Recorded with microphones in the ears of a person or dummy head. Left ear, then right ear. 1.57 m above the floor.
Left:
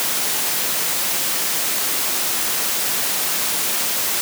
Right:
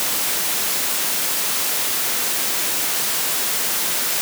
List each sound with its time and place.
Only background noise.